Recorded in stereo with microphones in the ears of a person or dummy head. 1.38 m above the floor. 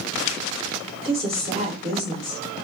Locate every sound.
1.0 s a woman speaking: 35° right (ahead or behind), 1.4 m